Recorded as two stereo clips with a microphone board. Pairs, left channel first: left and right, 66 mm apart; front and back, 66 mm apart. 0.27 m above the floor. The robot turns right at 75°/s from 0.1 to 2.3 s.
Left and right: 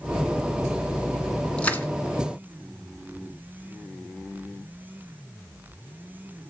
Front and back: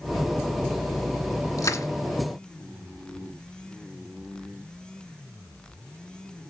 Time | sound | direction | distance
1.6 | crushing | 15° left | 1.7 m